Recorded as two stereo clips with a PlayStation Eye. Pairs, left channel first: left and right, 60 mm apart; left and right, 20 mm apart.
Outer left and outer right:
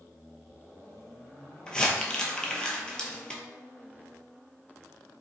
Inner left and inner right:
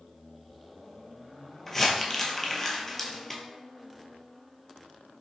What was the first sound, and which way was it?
Crumpling, 15° left (ahead or behind).